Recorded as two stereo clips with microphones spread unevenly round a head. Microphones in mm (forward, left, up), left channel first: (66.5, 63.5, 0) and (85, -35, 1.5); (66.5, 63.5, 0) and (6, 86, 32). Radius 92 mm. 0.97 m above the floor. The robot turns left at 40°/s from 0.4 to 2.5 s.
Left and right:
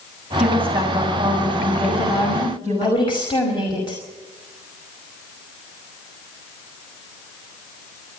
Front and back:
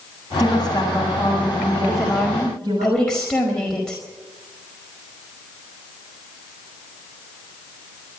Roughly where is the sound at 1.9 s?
Left.